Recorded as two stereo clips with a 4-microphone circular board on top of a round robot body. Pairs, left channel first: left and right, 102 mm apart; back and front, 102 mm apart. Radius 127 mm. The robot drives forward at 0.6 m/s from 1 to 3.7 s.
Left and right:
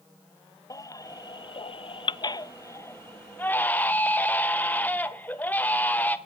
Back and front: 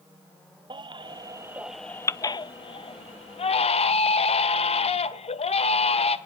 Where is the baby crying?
35° left, 0.7 m; by 6.2 s 165° left, 1.3 m.